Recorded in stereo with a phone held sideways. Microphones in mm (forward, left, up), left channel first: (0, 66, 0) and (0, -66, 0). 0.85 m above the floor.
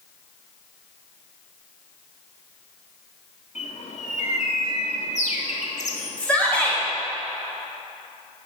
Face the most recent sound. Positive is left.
turn(degrees=10)  # may be behind; listen again after turning